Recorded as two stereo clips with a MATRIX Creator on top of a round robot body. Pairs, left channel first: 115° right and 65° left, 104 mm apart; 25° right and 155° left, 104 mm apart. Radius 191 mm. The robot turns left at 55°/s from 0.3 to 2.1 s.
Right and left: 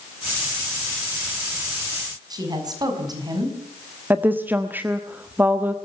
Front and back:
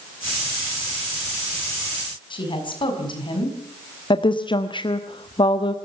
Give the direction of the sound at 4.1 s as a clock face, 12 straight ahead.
12 o'clock.